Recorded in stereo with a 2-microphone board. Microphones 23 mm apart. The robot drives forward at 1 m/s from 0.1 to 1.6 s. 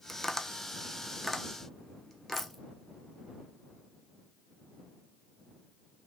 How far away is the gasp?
I don't hear a gasp.